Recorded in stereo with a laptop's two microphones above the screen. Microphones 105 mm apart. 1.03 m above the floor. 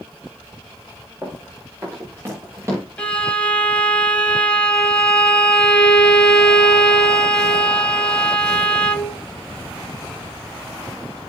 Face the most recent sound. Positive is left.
turn(degrees=10)  # may be behind; listen again after turning